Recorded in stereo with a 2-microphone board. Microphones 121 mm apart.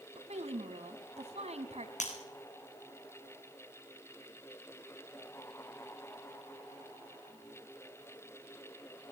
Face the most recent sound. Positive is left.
turn(degrees=80)